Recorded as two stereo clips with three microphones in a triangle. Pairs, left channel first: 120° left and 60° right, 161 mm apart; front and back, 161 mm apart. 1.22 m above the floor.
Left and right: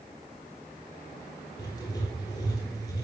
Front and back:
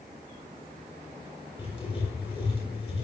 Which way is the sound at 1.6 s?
55° left.